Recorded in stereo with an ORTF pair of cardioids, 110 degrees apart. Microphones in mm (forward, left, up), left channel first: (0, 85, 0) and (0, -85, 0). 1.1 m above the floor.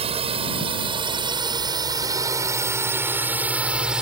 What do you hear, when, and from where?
0.0 s a drone: 35° right; by 4.0 s 5° right